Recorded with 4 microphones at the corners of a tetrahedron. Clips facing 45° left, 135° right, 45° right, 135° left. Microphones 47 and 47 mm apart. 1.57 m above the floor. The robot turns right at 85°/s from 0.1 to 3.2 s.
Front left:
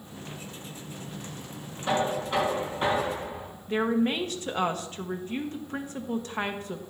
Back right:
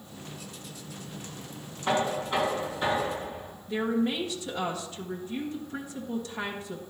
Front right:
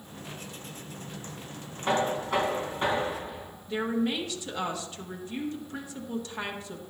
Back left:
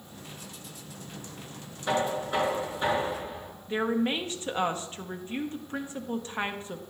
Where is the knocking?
80° right, 4 m; by 3.5 s 35° left, 4 m.